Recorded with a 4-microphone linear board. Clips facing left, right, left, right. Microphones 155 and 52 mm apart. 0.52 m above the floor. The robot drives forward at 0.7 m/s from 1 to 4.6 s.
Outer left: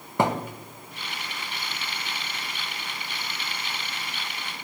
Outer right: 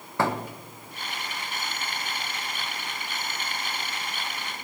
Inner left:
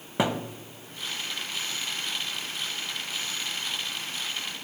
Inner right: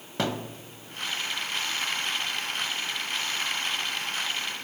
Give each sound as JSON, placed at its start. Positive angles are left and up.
{"t": 0.2, "sound": "a thud", "side_deg": 20, "distance_m": 0.9}